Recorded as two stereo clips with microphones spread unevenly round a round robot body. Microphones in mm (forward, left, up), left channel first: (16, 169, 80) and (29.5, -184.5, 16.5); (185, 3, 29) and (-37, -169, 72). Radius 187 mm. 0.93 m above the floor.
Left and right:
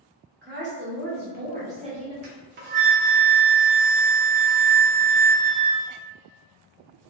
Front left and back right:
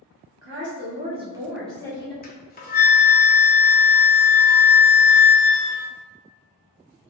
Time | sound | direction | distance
0.4 | a woman speaking | 120° right | 1.0 m
2.2 | a flute | 25° right | 0.6 m